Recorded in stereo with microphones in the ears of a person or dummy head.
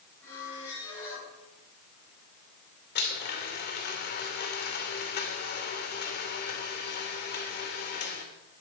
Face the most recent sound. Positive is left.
turn(degrees=55)  # may be behind; listen again after turning